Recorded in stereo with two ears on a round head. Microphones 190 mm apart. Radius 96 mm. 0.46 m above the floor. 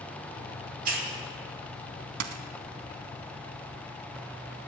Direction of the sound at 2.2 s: 65° right (ahead or behind).